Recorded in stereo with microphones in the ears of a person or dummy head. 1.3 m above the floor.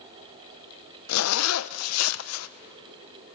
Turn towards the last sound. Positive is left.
turn(degrees=85)